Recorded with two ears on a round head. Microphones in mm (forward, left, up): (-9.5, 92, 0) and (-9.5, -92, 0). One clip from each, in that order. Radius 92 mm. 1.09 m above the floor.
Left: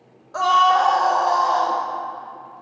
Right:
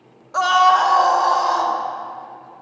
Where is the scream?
25° right (ahead or behind), 1.2 m; by 1.8 s 50° right (ahead or behind), 3.5 m.